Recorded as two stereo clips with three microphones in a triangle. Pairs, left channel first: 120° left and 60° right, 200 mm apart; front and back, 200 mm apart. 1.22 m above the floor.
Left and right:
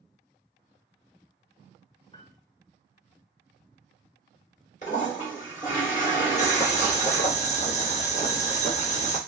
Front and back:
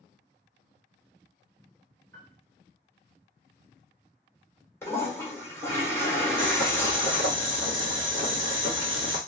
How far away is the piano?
About 0.8 m.